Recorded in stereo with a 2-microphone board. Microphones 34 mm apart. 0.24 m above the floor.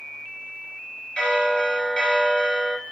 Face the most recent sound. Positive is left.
turn(degrees=30)  # may be behind; listen again after turning